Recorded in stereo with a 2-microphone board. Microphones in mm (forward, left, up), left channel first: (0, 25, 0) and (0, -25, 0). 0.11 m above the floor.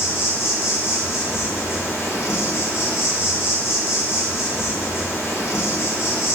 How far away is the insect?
About 0.8 m.